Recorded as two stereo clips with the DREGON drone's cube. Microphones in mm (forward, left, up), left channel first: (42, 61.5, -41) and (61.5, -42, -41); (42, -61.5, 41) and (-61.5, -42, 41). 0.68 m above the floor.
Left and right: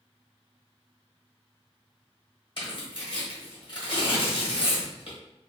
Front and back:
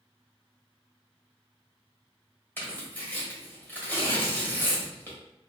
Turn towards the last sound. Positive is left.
turn(degrees=60)